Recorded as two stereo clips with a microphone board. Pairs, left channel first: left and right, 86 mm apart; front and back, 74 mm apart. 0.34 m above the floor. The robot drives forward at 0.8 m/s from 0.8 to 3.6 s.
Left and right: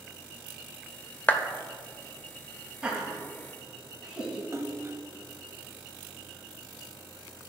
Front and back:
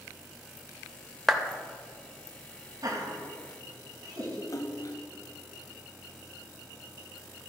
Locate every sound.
1.3 s a clap: 85° left, 0.7 m; by 1.4 s 110° left, 0.7 m
2.8 s laughter: 170° right, 1.8 m
4.5 s a splash: 35° right, 0.7 m